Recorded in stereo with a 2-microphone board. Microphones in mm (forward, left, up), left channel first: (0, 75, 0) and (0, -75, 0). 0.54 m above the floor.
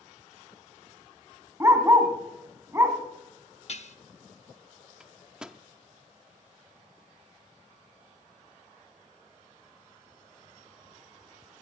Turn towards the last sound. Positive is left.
turn(degrees=-5)  # may be behind; listen again after turning